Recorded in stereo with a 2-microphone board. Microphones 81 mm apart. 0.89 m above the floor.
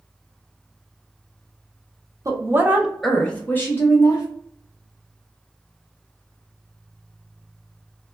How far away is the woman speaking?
About 0.6 m.